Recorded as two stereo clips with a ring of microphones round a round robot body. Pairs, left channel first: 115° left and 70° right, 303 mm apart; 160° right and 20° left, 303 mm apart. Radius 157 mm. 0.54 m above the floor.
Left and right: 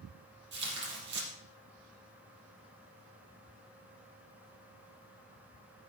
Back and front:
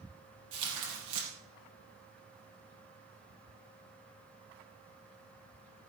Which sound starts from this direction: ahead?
Tearing paper, at 0.5 s.